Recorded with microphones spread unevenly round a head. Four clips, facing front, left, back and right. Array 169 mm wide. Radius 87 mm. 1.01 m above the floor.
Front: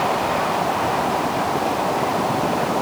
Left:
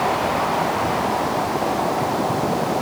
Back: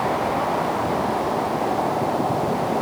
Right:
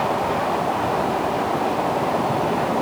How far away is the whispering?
No whispering in this recording.